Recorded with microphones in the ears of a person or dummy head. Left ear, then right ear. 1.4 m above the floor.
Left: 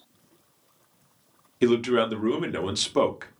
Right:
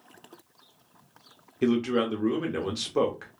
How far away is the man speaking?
About 0.7 m.